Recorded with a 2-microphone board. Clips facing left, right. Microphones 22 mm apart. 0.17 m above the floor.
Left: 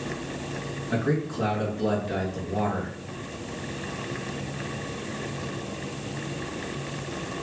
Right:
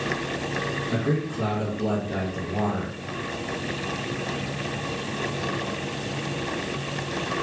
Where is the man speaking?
55° left (ahead or behind), 1.9 m.